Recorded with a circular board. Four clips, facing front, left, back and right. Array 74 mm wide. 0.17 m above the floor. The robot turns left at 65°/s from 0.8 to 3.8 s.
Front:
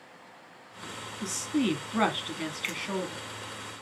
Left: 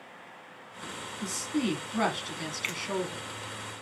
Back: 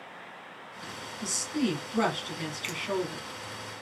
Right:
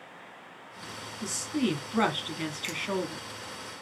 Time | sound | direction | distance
1.2 | a woman speaking | 15° left | 1.1 m
2.6 | a finger snap | 60° left | 1.2 m